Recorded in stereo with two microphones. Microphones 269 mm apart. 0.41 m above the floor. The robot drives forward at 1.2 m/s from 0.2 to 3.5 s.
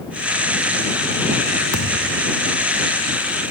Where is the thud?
85° left; by 2.3 s 90° left.